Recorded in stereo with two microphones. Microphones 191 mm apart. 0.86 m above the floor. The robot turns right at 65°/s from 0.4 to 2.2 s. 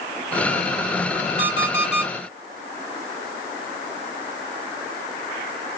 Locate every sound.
1.4 s an alarm clock: 35° right, 2 m; by 2.1 s 10° left, 2 m